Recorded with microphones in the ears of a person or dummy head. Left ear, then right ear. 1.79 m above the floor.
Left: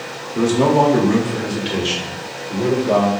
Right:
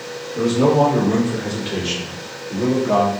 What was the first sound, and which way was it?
A man speaking, 55° left (ahead or behind).